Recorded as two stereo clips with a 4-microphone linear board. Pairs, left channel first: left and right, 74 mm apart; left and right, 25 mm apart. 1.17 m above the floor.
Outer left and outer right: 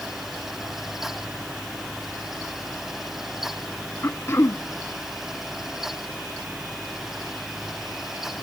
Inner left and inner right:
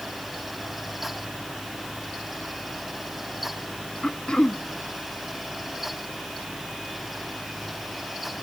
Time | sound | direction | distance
4.0 | throat clearing | 35° left (ahead or behind) | 0.6 m